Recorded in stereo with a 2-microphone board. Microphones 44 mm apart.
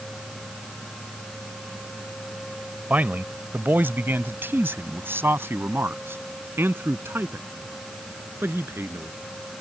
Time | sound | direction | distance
2.9 | a man speaking | 40° right (ahead or behind) | ?